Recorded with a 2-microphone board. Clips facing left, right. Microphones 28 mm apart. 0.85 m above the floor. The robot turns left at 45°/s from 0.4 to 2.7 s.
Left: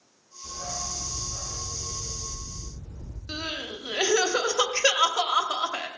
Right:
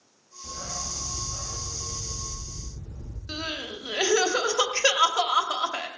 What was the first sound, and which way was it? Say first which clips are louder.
A dog barking: left 1 dB; 90° right.